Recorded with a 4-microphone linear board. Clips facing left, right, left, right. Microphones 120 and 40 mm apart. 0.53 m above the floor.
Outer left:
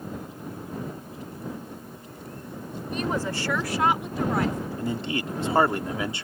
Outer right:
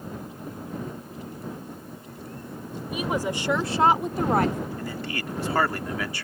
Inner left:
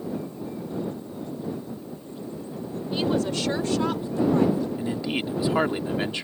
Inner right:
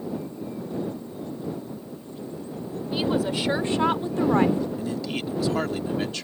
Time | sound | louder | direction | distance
2.9 | a woman speaking | outer right 1 dB, even | 5° right (ahead or behind) | ?
4.8 | a man speaking | outer left 4 dB, inner left 2 dB | 25° left (ahead or behind) | ?